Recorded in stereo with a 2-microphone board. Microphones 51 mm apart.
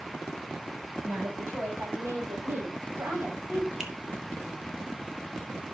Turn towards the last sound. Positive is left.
turn(degrees=-15)  # may be behind; listen again after turning